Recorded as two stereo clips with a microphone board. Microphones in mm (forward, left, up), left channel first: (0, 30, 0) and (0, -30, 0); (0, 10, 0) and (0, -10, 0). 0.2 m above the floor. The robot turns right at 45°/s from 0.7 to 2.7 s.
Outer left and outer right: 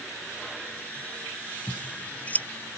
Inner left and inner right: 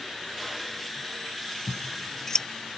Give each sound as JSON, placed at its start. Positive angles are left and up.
{"t": 1.7, "sound": "scissors", "side_deg": -5}